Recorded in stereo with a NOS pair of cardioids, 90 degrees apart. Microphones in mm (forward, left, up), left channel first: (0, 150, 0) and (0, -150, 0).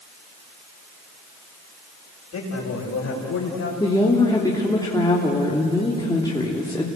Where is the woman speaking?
15° left, 3 m.